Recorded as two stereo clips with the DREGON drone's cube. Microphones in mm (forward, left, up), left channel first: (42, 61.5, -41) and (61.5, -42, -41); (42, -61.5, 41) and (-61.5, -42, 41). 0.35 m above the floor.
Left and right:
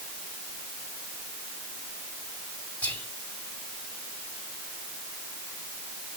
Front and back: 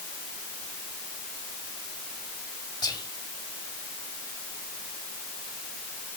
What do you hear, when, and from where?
2.8 s whispering: 25° left, 2.5 m